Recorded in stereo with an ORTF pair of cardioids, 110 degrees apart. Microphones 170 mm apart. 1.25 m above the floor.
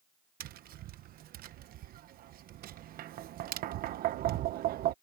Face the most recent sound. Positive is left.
turn(degrees=-65)